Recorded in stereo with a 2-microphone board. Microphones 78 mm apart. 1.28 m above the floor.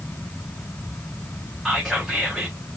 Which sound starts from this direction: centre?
Whispering, at 1.6 s.